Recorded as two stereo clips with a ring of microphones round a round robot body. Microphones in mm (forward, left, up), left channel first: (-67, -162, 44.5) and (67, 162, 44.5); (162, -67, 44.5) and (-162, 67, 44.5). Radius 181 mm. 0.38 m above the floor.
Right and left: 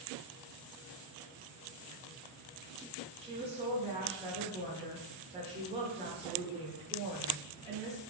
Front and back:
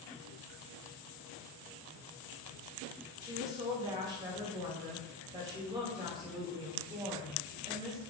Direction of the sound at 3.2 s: 100° left.